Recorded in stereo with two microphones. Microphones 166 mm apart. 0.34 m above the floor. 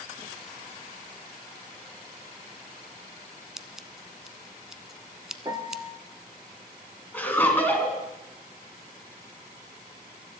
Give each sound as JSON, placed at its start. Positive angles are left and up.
{"t": 3.6, "sound": "scissors", "side_deg": -5, "distance_m": 0.7}
{"t": 5.5, "sound": "a piano", "side_deg": -25, "distance_m": 0.9}
{"t": 7.1, "sound": "laughter", "side_deg": 10, "distance_m": 3.5}